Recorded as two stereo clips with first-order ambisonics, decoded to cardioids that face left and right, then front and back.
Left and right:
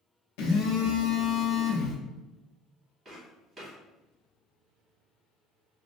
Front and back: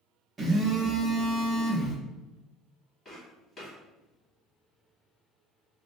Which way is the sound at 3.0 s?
35° right.